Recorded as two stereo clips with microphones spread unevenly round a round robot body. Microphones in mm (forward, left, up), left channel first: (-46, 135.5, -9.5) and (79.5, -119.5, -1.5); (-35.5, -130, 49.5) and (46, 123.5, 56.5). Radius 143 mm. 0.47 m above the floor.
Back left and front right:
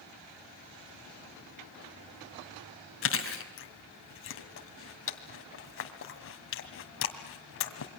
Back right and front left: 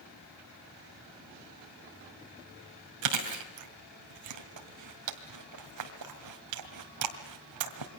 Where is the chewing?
70° left, 2 m.